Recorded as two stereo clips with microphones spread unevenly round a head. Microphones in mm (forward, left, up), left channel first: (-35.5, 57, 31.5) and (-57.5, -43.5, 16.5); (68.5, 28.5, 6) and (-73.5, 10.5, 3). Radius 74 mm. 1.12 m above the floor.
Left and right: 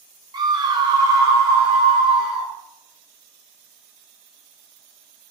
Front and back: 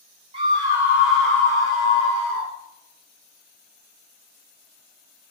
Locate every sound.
0.3 s a scream: 125° right, 0.9 m; by 2.5 s 25° right, 1.1 m